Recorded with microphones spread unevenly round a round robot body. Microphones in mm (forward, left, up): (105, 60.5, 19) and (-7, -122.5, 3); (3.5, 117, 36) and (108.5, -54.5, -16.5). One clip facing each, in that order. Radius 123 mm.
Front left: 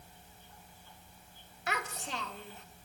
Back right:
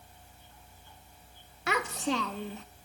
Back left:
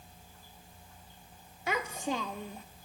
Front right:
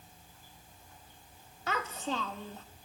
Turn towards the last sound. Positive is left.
turn(degrees=-155)